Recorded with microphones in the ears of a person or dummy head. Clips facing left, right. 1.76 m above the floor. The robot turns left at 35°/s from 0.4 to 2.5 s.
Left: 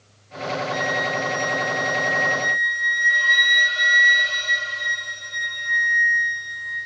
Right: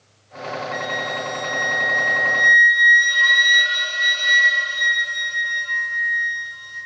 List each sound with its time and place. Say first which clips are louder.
0.7 s a flute: left 2 dB; straight ahead, 4 m; by 6.9 s 65° right, 4 m